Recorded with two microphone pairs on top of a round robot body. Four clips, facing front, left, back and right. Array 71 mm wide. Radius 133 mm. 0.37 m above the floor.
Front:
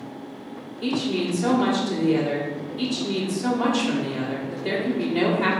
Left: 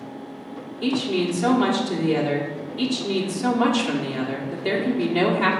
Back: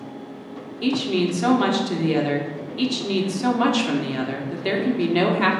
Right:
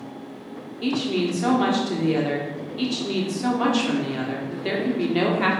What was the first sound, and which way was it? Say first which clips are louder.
A woman speaking: left 1 dB, back 3 dB; straight behind.